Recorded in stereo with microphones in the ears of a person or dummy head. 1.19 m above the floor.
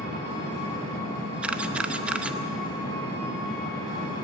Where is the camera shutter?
10° right (ahead or behind), 0.8 m.